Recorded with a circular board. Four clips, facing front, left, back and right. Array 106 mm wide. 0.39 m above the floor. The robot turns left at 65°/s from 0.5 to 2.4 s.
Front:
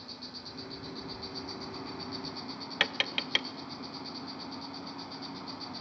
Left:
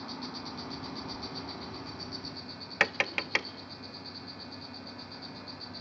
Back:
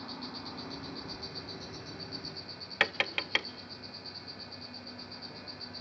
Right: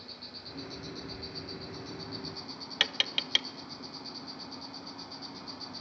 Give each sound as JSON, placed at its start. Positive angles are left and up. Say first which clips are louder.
{"t": 0.0, "sound": "an insect", "louder": "left 9 dB, back 5 dB", "azimuth_deg": 115, "distance_m": 2.0}
{"t": 2.8, "sound": "tapping", "louder": "left 7 dB, back 2 dB", "azimuth_deg": 110, "distance_m": 0.6}